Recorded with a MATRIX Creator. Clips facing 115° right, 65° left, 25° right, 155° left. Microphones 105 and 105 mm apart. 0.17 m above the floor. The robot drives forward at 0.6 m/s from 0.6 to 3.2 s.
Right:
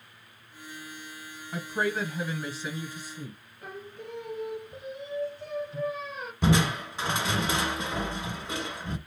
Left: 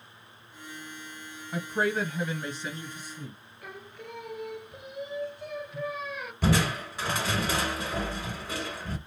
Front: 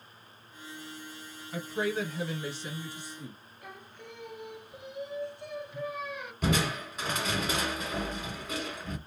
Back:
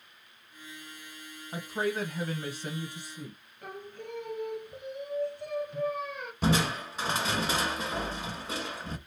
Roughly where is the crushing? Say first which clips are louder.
Right 1 dB, back 2 dB; behind.